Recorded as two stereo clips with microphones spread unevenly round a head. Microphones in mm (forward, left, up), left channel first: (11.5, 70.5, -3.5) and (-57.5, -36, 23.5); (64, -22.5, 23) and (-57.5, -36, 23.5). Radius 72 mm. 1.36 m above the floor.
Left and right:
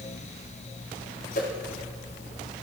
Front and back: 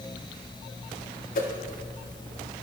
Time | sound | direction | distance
1.4 | a whoosh | 25° left | 4 m